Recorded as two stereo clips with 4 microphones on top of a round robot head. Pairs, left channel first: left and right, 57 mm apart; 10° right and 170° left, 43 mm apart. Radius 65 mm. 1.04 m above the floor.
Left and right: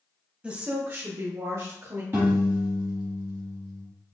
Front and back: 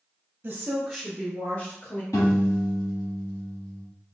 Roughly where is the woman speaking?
Behind right.